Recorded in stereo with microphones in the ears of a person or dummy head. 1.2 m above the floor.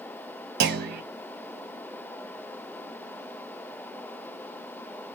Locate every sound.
0.6 s a clunk: 50° right (ahead or behind), 0.7 m